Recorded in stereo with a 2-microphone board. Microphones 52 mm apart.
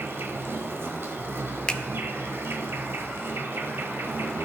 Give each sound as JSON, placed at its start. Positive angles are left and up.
{"t": 0.0, "sound": "an insect", "side_deg": -50, "distance_m": 1.0}
{"t": 1.7, "sound": "a finger snap", "side_deg": 20, "distance_m": 0.5}